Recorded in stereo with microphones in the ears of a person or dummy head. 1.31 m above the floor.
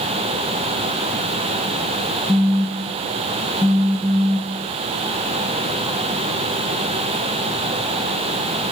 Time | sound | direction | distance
2.3 | a phone buzzing | 5° right (ahead or behind) | 0.9 m